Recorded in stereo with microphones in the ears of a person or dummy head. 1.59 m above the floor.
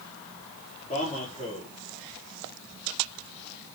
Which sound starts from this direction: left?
A man speaking, at 0.9 s.